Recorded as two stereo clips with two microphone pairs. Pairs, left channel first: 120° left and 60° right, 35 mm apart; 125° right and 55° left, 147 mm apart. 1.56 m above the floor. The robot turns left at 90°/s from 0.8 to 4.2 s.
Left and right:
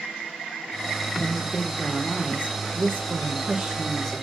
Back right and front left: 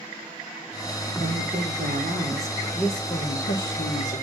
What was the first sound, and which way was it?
A woman speaking, 100° left.